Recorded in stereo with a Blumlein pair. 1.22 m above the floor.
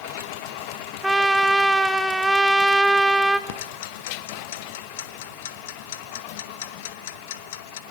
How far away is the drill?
No drill in this recording.